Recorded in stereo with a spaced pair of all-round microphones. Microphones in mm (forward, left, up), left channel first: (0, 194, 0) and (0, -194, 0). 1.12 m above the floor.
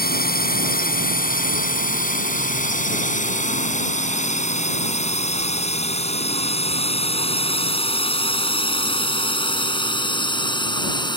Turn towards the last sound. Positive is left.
turn(degrees=10)  # may be behind; listen again after turning